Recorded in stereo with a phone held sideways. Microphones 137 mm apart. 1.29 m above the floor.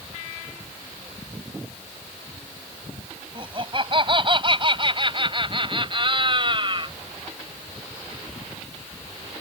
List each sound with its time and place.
3.4 s laughter: 40° right (ahead or behind)